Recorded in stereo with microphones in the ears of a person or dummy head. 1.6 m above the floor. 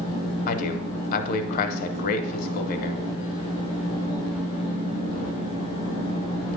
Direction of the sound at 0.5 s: 50° left (ahead or behind).